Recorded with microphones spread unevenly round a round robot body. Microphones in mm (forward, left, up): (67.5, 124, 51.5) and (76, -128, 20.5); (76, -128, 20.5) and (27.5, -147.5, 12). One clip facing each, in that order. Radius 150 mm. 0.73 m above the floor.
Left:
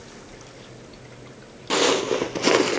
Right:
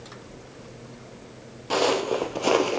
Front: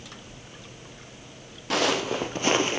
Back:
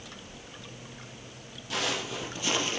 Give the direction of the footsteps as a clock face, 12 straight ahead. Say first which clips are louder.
Left 2 dB, front 7 dB; 11 o'clock.